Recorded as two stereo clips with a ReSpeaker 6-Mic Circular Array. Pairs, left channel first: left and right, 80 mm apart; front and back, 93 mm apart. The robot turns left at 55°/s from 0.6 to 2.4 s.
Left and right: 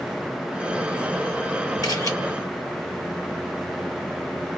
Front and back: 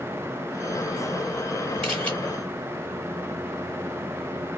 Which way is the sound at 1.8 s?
80° left.